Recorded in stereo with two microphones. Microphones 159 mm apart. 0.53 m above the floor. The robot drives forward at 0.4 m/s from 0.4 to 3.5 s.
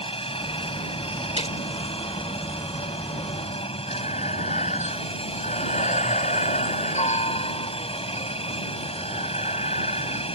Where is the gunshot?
40° left (ahead or behind).